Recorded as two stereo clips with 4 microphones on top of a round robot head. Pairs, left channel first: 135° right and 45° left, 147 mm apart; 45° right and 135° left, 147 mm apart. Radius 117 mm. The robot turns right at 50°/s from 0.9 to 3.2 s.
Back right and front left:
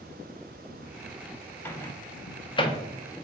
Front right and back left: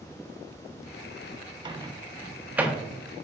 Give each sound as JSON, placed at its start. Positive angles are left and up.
{"t": 1.6, "sound": "a microwave", "azimuth_deg": 160, "distance_m": 0.7}